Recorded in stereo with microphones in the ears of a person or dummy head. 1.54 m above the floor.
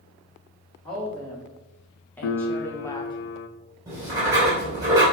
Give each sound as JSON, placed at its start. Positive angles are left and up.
{"t": 0.8, "sound": "a woman speaking", "side_deg": 5, "distance_m": 2.5}
{"t": 2.2, "sound": "a piano", "side_deg": 65, "distance_m": 0.6}
{"t": 3.9, "sound": "writing", "side_deg": -15, "distance_m": 2.5}